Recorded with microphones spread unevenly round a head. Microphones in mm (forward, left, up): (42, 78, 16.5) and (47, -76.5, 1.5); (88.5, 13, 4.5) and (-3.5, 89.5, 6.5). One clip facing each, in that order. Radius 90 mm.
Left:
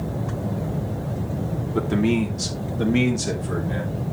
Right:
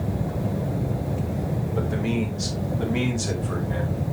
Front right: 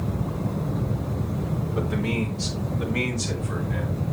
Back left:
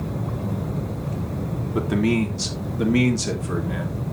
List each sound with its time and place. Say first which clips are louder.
1.8 s a man speaking: left 6 dB, back left 7 dB; 130° left, 2.5 m; by 4.0 s 160° left, 2.5 m